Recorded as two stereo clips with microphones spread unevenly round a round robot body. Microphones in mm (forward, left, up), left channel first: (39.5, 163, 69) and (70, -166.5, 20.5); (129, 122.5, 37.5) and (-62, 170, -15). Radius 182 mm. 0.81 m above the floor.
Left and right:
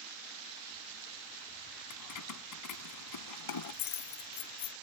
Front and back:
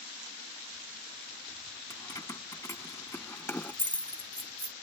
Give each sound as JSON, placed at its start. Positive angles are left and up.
{"t": 1.9, "sound": "keys jangling", "azimuth_deg": 55}